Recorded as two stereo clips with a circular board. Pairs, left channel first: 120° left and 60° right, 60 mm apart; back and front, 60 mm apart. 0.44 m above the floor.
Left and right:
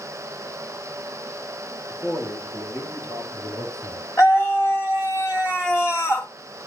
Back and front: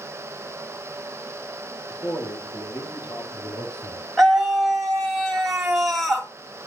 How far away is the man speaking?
About 8.5 m.